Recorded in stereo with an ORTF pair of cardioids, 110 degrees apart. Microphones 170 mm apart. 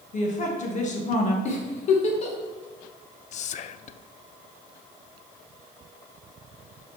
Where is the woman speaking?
45° left, 2 m.